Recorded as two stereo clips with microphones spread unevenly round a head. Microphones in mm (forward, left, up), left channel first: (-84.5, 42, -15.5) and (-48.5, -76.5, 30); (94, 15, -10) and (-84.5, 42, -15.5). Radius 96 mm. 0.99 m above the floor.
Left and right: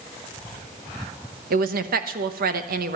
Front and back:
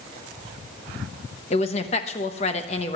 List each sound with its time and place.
1.5 s a woman speaking: 65° right, 1.0 m